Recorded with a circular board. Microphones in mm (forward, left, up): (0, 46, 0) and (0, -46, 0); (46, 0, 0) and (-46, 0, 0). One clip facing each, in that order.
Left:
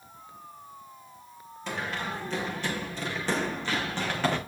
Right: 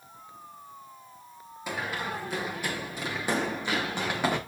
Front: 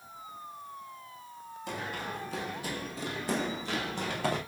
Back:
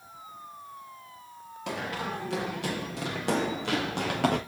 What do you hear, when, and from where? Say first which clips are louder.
1.7 s running footsteps: even, back 4 dB; 170° right, 5.5 m; by 4.4 s 165° right, 4 m